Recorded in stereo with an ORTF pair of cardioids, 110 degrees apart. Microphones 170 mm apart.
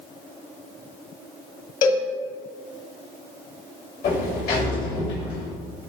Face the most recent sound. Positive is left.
turn(degrees=65)